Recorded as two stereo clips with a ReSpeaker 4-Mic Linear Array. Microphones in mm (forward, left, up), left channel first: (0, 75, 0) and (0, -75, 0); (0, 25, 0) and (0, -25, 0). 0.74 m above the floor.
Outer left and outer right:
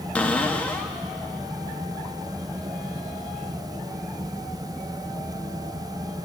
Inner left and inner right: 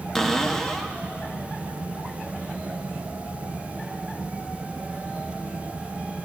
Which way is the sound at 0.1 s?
10° left (ahead or behind).